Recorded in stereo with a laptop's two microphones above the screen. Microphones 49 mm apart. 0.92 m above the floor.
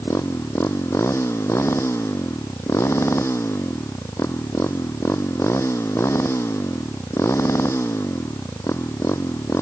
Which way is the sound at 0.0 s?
65° left (ahead or behind).